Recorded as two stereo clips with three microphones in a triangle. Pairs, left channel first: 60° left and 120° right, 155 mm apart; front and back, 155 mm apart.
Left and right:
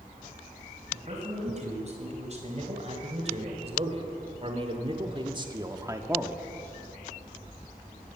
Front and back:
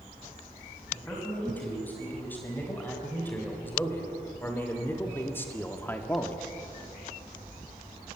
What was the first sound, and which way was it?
A man speaking, 80° right.